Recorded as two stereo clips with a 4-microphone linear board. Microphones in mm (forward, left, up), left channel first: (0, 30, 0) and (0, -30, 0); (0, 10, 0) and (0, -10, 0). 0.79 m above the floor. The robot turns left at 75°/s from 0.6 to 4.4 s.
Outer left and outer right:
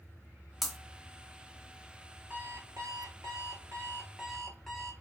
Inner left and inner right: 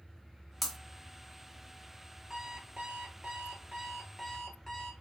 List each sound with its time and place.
0.6 s breaking glass: 5° right (ahead or behind), 0.9 m; by 0.8 s 5° left (ahead or behind), 0.9 m
2.3 s an alarm clock: 25° right, 1.4 m; by 4.9 s straight behind, 1.4 m